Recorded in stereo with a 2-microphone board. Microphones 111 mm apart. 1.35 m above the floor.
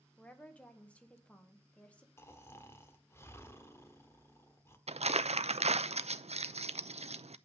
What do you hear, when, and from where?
0.2 s a woman speaking: 10° left (ahead or behind), 1.6 m
2.2 s snoring: 25° left (ahead or behind), 1.2 m
4.9 s crumpling: 75° right (ahead or behind), 0.6 m